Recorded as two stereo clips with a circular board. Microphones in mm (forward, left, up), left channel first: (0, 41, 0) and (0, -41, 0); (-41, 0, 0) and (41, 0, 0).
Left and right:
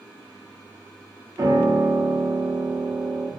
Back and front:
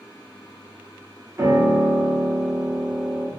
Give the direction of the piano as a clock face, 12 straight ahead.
2 o'clock.